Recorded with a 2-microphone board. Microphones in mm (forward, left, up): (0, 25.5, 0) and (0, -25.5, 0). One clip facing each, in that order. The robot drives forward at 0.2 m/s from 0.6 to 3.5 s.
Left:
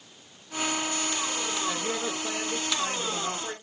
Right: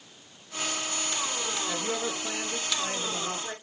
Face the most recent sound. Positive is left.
turn(degrees=25)  # may be behind; listen again after turning